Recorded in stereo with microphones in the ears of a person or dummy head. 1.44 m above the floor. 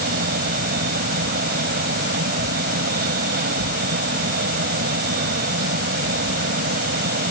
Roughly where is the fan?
Right.